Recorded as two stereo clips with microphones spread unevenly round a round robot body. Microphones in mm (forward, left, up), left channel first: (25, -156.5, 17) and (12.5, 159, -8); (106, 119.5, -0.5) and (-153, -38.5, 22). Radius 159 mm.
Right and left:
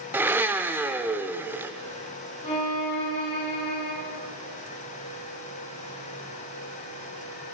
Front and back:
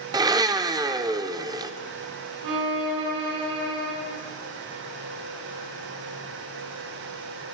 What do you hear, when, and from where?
0.1 s a blender: 150° left, 0.8 m
2.4 s a violin: 160° right, 5 m